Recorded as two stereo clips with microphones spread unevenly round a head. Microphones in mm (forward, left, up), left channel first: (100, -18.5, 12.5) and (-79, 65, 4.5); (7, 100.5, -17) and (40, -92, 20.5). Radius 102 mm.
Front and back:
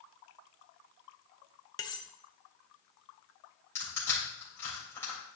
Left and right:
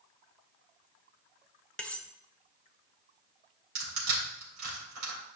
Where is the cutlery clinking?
5° right, 0.6 m.